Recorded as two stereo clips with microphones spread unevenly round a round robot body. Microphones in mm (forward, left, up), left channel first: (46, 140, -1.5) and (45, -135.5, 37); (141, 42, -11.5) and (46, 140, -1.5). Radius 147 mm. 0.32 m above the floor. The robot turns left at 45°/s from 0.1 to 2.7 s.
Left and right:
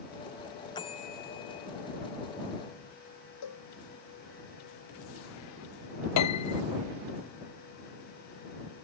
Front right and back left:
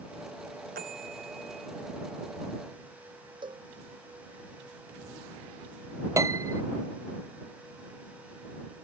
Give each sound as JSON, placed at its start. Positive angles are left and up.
{"t": 0.8, "sound": "a bell", "azimuth_deg": 165}
{"t": 3.4, "sound": "a cowbell", "azimuth_deg": 85}
{"t": 6.2, "sound": "a piano", "azimuth_deg": 70}